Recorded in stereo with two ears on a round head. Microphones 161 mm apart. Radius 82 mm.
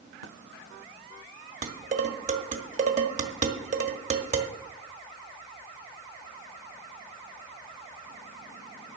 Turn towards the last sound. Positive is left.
turn(degrees=-45)  # may be behind; listen again after turning